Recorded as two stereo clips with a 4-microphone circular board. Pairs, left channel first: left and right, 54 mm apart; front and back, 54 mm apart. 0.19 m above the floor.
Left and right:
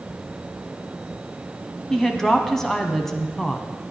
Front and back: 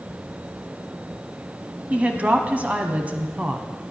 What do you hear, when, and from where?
1.9 s a woman speaking: 160° left, 1.1 m